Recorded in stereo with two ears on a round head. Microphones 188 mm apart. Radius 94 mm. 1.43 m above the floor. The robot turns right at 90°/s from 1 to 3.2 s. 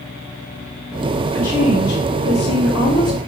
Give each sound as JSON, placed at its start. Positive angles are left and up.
{"t": 1.3, "sound": "a woman speaking", "azimuth_deg": 0, "distance_m": 4.0}